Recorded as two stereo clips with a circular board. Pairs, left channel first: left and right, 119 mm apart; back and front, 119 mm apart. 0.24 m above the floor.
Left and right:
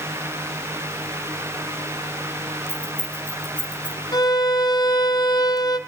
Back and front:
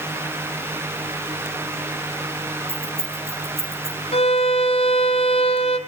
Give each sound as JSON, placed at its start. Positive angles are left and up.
{"t": 2.7, "sound": "keys jangling", "azimuth_deg": -35, "distance_m": 10.0}
{"t": 4.1, "sound": "a violin", "azimuth_deg": 145, "distance_m": 2.0}